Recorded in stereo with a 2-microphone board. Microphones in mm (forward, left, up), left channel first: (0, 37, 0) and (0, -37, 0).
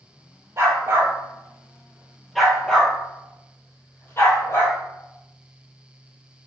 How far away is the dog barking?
About 1.5 m.